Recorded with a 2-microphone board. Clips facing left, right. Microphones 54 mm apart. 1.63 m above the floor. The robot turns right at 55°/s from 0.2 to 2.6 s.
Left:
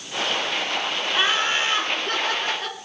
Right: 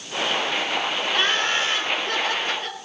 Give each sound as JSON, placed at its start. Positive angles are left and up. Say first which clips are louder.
{"t": 1.1, "sound": "laughter", "louder": "left 1 dB", "azimuth_deg": 10, "distance_m": 6.0}